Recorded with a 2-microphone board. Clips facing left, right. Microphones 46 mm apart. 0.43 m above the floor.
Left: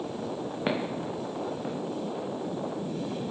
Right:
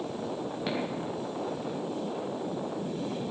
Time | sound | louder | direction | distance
0.7 | footsteps | left 3 dB | 25° left (ahead or behind) | 3.5 m